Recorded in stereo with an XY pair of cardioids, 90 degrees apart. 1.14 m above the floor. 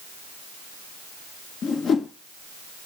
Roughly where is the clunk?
I don't hear a clunk.